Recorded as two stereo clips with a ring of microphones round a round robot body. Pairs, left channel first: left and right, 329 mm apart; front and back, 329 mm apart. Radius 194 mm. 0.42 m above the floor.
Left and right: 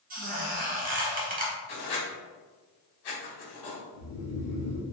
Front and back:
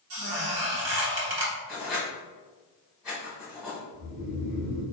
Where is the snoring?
125° left, 1.3 m.